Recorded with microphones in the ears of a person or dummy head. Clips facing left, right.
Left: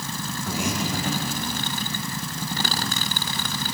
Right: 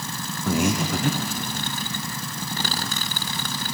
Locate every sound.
0.5 s breathing: 50° right (ahead or behind), 0.6 m